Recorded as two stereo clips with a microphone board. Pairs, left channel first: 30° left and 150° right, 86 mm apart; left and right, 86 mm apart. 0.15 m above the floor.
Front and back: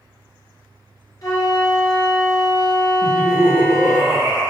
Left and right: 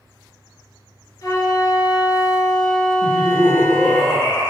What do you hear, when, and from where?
1.2 s a flute: 60° left, 1.0 m
3.0 s laughter: 150° left, 1.7 m